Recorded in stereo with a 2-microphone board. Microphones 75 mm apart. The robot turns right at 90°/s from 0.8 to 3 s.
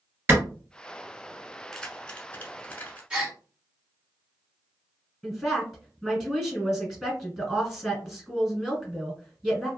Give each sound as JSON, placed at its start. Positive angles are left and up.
{"t": 0.3, "sound": "a clap", "side_deg": -30, "distance_m": 1.9}
{"t": 1.7, "sound": "keys jangling", "side_deg": 5, "distance_m": 0.8}
{"t": 3.1, "sound": "a gasp", "side_deg": -10, "distance_m": 1.8}
{"t": 5.2, "sound": "a woman speaking", "side_deg": 0, "distance_m": 1.2}